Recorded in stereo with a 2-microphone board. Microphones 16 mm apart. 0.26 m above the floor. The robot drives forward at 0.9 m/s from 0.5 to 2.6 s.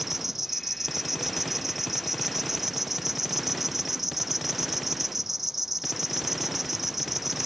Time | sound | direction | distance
0.0 | an insect | 15° right (ahead or behind) | ?